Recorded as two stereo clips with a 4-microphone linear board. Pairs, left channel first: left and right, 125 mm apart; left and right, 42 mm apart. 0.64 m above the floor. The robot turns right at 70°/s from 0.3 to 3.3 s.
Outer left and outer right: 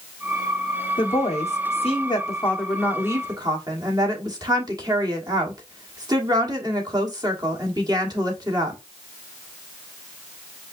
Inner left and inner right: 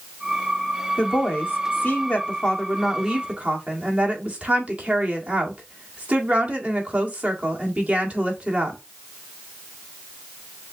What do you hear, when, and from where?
1.0 s a woman speaking: 55° left, 1.6 m; by 8.8 s 140° right, 1.6 m